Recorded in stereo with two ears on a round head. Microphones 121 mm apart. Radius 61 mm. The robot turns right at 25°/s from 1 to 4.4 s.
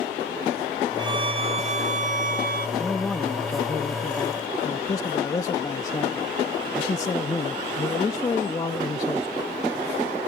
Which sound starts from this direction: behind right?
A violin, at 1.0 s.